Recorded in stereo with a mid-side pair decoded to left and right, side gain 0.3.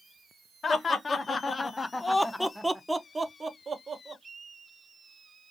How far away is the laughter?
About 1.1 m.